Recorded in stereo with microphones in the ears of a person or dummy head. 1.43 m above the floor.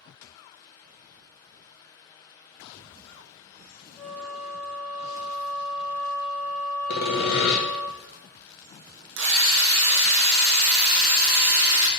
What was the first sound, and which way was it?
A flute, 10° left (ahead or behind).